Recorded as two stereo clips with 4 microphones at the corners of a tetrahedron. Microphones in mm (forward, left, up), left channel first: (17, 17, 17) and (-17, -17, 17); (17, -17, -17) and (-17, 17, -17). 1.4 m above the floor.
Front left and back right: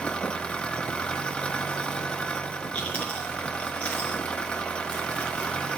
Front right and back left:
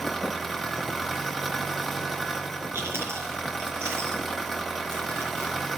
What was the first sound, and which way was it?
An engine running, 40° left.